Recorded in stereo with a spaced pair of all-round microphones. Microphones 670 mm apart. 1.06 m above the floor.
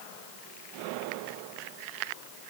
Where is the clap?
No clap in this recording.